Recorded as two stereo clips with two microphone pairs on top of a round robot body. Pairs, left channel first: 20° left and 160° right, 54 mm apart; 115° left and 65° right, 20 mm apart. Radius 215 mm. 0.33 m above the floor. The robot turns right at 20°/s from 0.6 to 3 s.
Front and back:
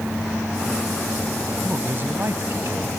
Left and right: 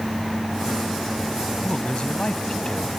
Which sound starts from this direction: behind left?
A man speaking, at 1.6 s.